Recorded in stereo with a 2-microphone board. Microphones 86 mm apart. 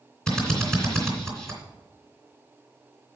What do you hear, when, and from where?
0.3 s a drill: 10° left (ahead or behind), 3 m